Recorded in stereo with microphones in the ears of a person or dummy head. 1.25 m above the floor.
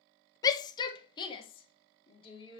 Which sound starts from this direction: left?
A shout, at 0.4 s.